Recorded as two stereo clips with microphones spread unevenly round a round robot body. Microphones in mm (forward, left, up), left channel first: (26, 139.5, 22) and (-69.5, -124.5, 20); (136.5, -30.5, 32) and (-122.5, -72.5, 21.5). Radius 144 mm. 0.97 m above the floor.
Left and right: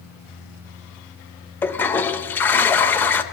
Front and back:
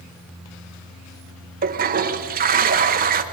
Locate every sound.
1.6 s a toilet flushing: 150° left, 0.7 m